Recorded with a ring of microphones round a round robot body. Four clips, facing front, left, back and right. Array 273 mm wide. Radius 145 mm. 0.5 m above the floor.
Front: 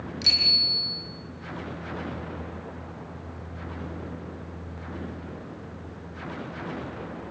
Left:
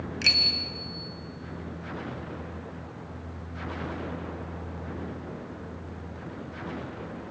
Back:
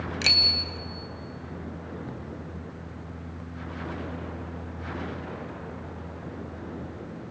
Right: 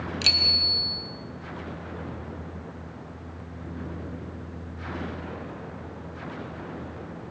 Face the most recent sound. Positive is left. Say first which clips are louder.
# right 1 dB, back 3 dB
turn(degrees=-165)